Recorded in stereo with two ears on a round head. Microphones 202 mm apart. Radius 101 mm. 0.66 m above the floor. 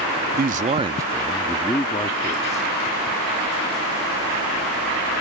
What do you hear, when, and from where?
0.4 s a man speaking: 40° right (ahead or behind); by 2.7 s 35° left (ahead or behind)